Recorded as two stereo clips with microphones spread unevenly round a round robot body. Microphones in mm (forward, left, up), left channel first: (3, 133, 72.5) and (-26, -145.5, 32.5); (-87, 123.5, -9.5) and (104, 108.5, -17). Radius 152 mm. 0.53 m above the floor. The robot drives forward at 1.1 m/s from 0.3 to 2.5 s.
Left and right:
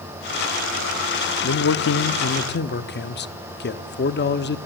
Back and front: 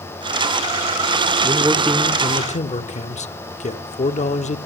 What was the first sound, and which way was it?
A man speaking, 50° left.